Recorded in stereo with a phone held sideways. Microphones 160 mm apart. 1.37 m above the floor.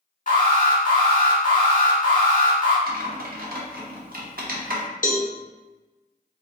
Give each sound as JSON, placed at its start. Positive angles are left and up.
{"t": 0.3, "sound": "an alarm", "side_deg": 65, "distance_m": 1.6}
{"t": 2.9, "sound": "typing on a keyboard", "side_deg": -65, "distance_m": 0.8}
{"t": 5.0, "sound": "a cowbell", "side_deg": 55, "distance_m": 0.5}